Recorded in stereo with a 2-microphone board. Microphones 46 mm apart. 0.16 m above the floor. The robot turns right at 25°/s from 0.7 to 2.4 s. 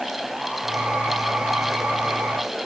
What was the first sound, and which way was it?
Only background noise.